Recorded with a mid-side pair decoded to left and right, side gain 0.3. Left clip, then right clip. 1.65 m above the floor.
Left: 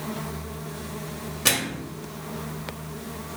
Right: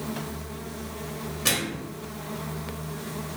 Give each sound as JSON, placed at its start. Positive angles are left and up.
{"t": 1.4, "sound": "a microwave", "azimuth_deg": 45, "distance_m": 0.8}